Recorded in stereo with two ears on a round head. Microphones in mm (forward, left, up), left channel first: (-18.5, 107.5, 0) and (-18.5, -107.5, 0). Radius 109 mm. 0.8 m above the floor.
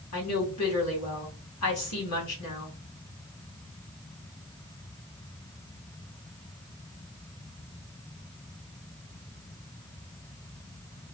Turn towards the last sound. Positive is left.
turn(degrees=75)  # may be behind; listen again after turning